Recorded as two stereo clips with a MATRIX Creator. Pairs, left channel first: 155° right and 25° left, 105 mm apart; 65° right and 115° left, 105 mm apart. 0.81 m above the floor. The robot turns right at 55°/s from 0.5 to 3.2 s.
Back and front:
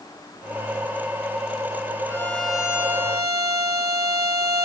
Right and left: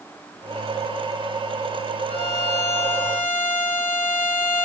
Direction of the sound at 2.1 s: 90° right.